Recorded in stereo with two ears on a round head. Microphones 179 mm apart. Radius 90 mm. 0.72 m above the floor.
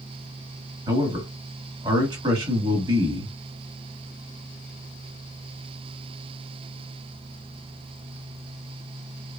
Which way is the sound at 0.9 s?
20° right (ahead or behind).